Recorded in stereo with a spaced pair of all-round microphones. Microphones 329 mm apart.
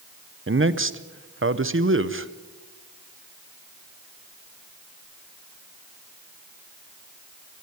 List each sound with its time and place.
0.5 s a man speaking: 35° right (ahead or behind), 0.8 m